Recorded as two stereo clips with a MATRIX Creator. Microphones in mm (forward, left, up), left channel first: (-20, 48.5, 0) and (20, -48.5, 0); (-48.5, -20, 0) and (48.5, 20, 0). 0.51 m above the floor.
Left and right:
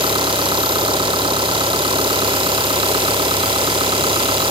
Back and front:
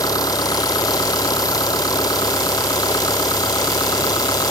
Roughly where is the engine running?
Right.